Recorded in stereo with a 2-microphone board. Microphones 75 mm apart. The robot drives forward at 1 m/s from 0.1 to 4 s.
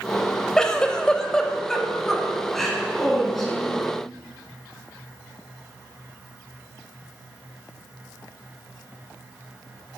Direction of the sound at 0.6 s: 10° left (ahead or behind).